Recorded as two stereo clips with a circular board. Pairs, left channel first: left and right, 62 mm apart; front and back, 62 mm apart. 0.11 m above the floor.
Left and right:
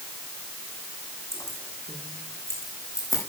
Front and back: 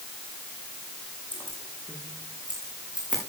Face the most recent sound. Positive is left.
turn(degrees=110)